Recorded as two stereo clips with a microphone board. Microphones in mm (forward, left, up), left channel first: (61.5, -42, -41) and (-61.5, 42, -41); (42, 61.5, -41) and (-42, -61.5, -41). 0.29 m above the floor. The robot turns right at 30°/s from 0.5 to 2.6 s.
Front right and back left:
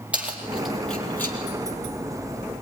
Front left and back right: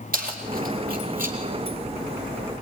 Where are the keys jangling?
130° right, 4 m; by 1.4 s 105° right, 4 m.